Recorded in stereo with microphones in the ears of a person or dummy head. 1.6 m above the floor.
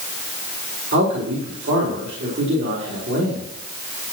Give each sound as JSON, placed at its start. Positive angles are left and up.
{"t": 0.9, "sound": "a man speaking", "side_deg": -55, "distance_m": 4.0}